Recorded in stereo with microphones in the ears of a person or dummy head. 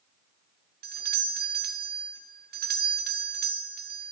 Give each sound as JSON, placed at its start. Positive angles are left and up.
{"t": 0.8, "sound": "a doorbell", "side_deg": -45, "distance_m": 0.7}